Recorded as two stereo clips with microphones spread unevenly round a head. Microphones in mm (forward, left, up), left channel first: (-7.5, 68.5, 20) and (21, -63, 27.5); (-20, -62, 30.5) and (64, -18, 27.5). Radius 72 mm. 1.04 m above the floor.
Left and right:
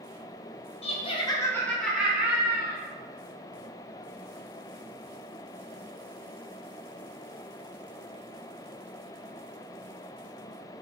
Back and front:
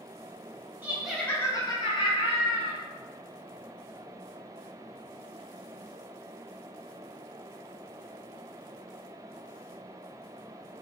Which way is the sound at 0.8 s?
95° left.